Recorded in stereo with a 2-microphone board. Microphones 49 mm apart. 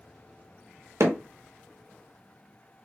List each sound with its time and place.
1.0 s hammering: 70° right (ahead or behind), 0.6 m